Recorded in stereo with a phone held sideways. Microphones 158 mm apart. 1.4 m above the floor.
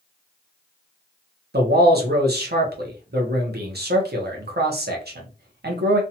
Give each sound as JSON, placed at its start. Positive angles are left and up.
{"t": 1.5, "sound": "a man speaking", "side_deg": -80, "distance_m": 0.7}